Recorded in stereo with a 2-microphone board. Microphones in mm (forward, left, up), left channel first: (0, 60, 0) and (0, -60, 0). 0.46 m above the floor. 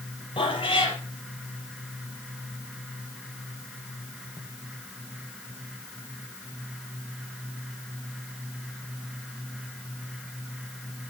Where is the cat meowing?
45° left (ahead or behind), 4.5 m.